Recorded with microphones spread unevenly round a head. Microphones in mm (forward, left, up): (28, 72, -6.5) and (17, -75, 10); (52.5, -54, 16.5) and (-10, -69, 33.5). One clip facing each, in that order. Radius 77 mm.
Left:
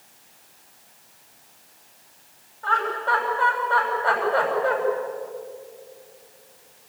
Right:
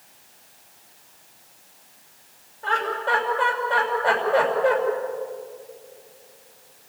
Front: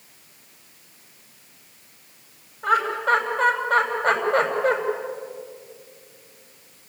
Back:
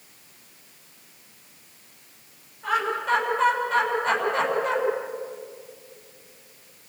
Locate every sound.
2.6 s laughter: 30° right, 7 m